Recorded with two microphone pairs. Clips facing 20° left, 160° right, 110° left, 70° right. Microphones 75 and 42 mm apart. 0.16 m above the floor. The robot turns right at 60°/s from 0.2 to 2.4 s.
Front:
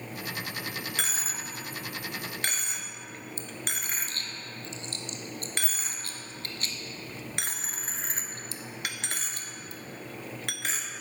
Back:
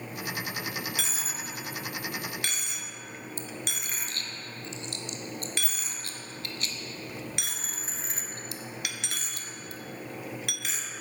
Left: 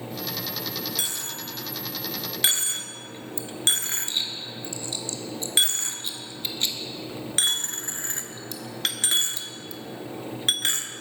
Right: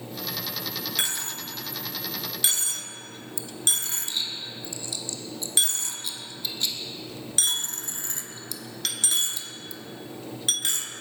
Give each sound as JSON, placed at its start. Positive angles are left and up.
{"t": 1.0, "sound": "a dropped coin", "azimuth_deg": -20, "distance_m": 0.6}